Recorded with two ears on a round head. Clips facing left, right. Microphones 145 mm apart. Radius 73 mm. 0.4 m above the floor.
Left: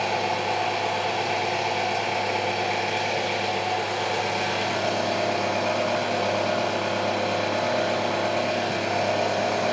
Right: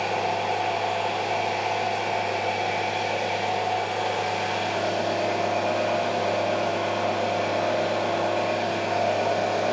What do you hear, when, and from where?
0.0 s an engine running: 70° left (ahead or behind), 2.5 m